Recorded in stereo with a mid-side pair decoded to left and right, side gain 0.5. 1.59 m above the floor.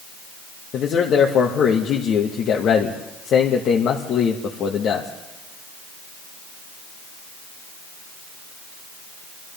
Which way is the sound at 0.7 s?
60° left.